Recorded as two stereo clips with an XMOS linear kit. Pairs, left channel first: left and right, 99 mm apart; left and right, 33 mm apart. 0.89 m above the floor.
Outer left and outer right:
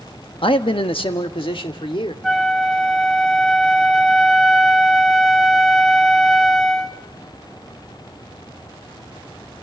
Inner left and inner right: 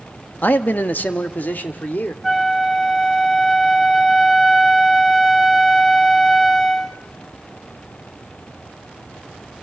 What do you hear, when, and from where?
0.4 s a man speaking: 65° left (ahead or behind), 1.1 m
2.2 s a flute: centre (ahead or behind), 1.2 m